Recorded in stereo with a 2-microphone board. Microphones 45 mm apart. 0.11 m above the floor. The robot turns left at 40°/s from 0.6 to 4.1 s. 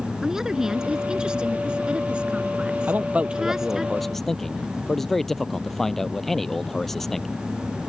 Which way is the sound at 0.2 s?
10° right (ahead or behind).